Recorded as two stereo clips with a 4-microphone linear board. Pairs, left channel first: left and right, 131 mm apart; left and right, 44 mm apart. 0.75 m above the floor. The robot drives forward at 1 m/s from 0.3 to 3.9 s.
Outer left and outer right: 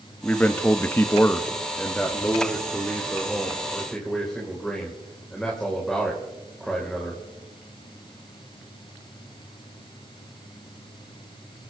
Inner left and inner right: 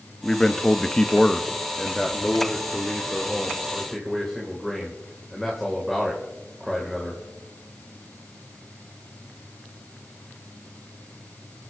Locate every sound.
0.2 s a man speaking: 10° left (ahead or behind), 1.0 m; by 7.2 s 5° left (ahead or behind), 3 m